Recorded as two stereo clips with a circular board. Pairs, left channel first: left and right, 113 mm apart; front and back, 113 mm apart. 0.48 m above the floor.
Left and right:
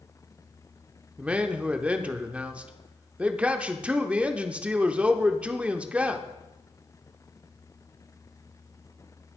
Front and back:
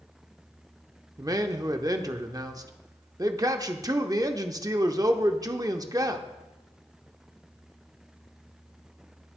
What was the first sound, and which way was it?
A man speaking, 160° right.